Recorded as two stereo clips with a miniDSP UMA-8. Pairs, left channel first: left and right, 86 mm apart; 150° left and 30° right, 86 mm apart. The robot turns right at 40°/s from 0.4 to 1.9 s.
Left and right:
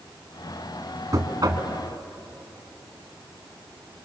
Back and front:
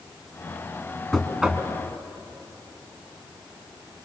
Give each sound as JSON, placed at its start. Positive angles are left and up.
{"t": 1.1, "sound": "knocking", "azimuth_deg": -125, "distance_m": 2.0}